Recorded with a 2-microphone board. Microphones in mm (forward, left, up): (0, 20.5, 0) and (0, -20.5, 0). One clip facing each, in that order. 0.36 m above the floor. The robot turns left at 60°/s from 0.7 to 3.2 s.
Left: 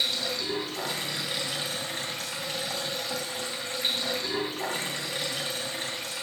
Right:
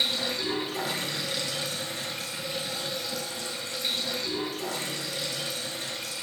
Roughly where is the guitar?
No guitar in this recording.